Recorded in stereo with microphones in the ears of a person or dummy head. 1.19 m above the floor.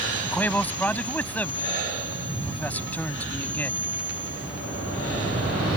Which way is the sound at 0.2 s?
5° left (ahead or behind).